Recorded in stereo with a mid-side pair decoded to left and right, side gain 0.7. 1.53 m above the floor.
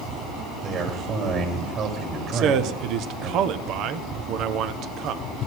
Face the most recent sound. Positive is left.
turn(degrees=-55)